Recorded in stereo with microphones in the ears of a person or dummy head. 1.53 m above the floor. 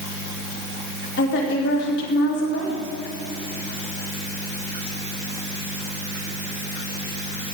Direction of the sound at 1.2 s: 70° left (ahead or behind).